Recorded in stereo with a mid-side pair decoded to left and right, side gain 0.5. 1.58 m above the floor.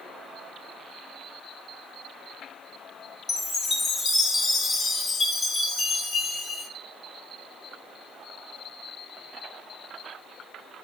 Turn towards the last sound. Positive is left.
turn(degrees=30)